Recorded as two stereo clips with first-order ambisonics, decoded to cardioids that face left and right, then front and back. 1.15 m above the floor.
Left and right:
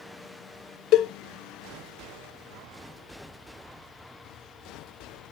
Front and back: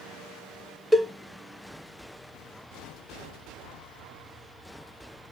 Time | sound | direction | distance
0.9 | a cowbell | 95° left | 0.6 m